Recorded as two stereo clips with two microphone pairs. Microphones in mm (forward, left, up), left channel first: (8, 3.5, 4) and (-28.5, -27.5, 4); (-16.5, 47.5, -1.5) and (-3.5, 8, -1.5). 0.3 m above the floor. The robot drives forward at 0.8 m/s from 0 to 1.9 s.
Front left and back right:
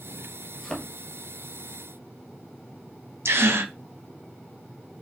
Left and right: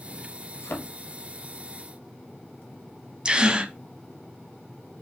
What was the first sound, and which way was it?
A thud, 115° left.